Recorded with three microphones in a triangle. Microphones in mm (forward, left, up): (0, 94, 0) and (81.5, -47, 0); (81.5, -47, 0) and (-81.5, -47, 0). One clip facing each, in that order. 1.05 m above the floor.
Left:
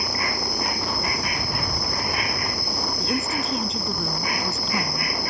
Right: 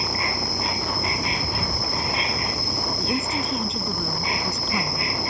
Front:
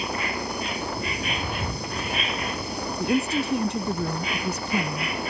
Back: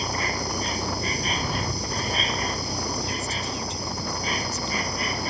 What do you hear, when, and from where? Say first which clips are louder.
0.0 s an insect: even, even; 125° right
3.0 s a woman speaking: even, front 8 dB; 30° left